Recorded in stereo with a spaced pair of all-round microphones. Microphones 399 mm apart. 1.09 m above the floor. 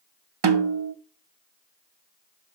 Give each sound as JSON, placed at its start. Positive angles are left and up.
{"t": 0.4, "sound": "a snare drum", "side_deg": -80, "distance_m": 0.6}